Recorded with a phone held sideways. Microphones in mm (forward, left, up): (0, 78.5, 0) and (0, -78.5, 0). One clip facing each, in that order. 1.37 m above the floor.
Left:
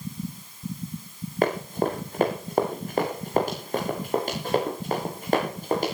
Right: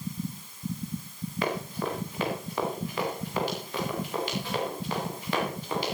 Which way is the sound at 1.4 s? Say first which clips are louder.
Left 7 dB; 45° left (ahead or behind).